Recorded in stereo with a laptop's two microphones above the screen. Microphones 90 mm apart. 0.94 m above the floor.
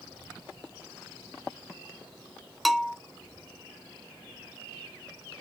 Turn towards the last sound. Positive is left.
turn(degrees=0)  # may be behind; listen again after turning